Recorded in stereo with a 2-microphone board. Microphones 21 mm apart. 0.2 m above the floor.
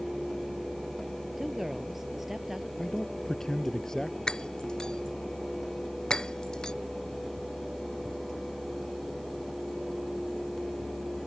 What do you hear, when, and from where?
1.4 s a woman speaking: 10° right (ahead or behind)
2.8 s a man speaking: 25° left (ahead or behind)
4.3 s breaking glass: 35° left (ahead or behind)